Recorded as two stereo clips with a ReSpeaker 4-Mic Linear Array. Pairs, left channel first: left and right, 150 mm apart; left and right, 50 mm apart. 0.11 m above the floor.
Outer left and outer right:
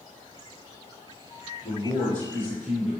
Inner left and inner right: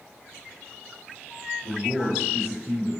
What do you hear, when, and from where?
1.6 s a man speaking: 15° left (ahead or behind), 1.1 m